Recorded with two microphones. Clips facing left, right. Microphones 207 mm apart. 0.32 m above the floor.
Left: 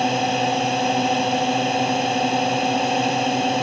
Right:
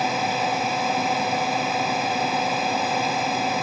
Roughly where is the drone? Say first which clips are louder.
Left 4 dB; left.